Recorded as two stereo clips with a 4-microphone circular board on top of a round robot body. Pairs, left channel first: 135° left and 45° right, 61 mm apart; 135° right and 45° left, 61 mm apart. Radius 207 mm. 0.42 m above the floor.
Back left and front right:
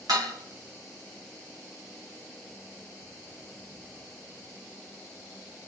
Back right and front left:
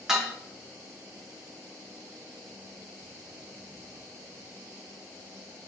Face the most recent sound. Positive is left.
turn(degrees=-35)